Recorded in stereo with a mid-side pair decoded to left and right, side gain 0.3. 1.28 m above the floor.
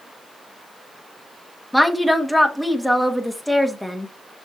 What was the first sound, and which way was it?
A woman speaking, 5° left.